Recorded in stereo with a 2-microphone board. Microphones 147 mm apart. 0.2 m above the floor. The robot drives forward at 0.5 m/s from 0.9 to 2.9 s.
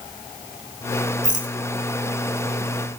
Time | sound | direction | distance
1.2 | a rattle | 55° right (ahead or behind) | 0.9 m